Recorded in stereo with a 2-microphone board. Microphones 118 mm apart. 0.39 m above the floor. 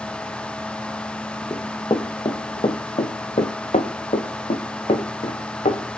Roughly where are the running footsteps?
Left.